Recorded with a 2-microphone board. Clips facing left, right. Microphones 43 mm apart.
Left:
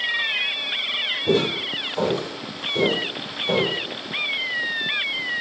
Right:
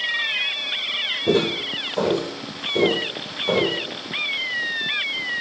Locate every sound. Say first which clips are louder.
1.3 s footsteps: right 1 dB; 40° right (ahead or behind), 4 m; by 3.8 s 50° right (ahead or behind), 5.5 m